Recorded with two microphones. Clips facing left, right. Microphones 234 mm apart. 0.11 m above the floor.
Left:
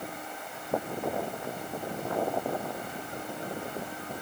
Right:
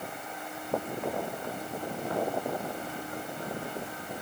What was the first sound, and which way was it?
Only background noise.